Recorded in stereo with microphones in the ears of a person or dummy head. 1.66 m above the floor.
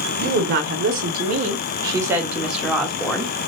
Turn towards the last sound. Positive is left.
turn(degrees=5)  # may be behind; listen again after turning